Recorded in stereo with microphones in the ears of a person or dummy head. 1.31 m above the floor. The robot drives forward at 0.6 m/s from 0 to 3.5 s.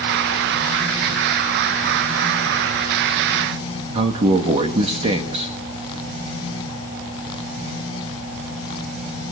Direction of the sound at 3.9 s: 35° right (ahead or behind).